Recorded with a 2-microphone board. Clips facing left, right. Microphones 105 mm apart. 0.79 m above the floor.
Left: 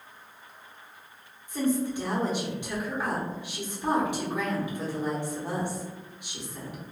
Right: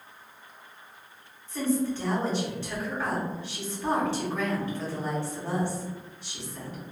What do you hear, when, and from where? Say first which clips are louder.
1.5 s a woman speaking: even; 15° left (ahead or behind), 1.1 m